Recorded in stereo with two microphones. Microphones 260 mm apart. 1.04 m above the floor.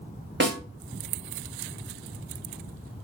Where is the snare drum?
45° right (ahead or behind), 0.8 m.